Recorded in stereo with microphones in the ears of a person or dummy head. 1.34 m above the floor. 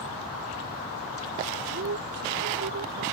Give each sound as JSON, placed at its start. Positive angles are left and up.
{"t": 1.7, "sound": "a man speaking", "side_deg": -55}